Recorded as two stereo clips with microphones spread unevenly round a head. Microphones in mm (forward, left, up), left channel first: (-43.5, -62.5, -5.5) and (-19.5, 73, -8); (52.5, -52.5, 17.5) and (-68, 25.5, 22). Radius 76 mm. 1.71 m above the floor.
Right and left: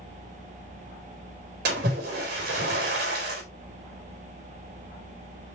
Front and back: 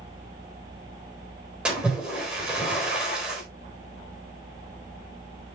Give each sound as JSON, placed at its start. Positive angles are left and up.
{"t": 1.6, "sound": "a splash", "azimuth_deg": 65, "distance_m": 4.0}